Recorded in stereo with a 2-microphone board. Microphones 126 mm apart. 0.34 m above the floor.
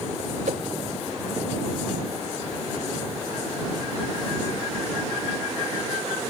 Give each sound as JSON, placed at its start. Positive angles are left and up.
{"t": 0.5, "sound": "a whoosh", "side_deg": -70}